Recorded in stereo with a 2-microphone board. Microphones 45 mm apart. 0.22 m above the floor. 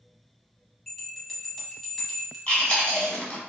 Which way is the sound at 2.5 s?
25° left (ahead or behind).